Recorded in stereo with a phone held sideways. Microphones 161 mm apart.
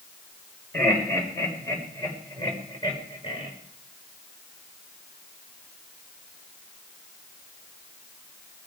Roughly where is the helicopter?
I don't hear a helicopter.